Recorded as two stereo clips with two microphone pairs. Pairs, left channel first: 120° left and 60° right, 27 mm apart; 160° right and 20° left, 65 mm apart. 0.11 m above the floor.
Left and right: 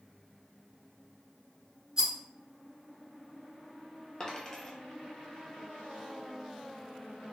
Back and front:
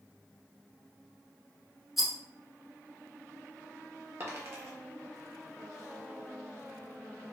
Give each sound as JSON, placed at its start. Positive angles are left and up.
{"t": 2.0, "sound": "a rattle", "azimuth_deg": -65, "distance_m": 1.0}
{"t": 4.2, "sound": "a dropped coin", "azimuth_deg": 55, "distance_m": 1.0}